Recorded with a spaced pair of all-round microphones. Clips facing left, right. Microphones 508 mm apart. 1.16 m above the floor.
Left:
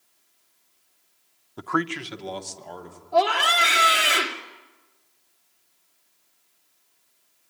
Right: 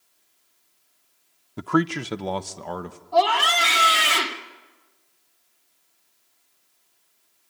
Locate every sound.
1.6 s a man speaking: 45° right (ahead or behind), 0.6 m; by 3.0 s 80° right, 1.6 m
3.1 s a scream: 20° right (ahead or behind), 2.5 m